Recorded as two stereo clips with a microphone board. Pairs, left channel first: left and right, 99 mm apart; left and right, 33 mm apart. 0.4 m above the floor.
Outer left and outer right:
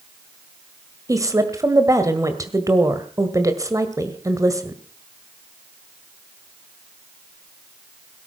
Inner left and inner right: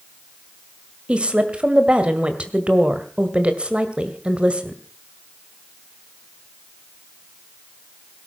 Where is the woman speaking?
35° right (ahead or behind), 1.8 m.